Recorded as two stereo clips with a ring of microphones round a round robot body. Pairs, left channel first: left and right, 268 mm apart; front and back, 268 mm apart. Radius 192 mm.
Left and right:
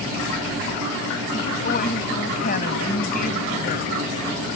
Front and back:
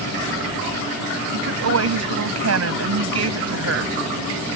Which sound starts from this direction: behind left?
A woman speaking, at 1.3 s.